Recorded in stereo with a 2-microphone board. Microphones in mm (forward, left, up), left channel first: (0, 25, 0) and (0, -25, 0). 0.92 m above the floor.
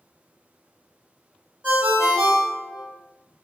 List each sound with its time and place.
1.6 s a ringtone: 35° right (ahead or behind), 1.1 m